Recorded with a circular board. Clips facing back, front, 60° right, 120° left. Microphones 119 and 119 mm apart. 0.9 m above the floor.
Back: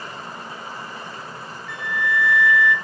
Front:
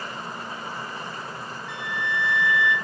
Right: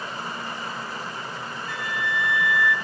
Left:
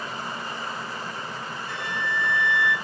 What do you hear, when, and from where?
1.7 s a flute: 65° left, 1.5 m